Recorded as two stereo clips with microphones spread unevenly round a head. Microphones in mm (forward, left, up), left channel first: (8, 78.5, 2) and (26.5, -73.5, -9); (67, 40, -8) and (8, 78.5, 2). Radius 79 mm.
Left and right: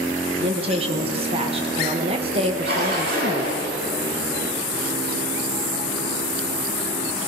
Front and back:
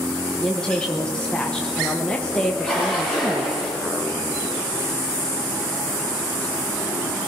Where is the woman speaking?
95° right, 1.0 m.